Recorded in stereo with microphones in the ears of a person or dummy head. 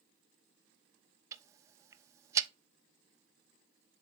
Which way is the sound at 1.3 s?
25° right (ahead or behind).